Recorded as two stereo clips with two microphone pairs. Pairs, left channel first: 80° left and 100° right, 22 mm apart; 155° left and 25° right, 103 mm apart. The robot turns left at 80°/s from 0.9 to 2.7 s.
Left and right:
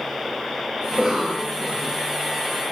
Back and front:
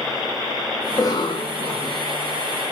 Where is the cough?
145° right, 1.0 m; by 2.0 s 130° left, 1.0 m.